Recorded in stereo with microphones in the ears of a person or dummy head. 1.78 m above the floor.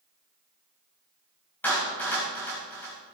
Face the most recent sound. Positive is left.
turn(degrees=15)  # may be behind; listen again after turning